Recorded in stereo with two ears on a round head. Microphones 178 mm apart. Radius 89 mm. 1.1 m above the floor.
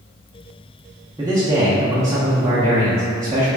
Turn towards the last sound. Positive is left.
turn(degrees=-15)  # may be behind; listen again after turning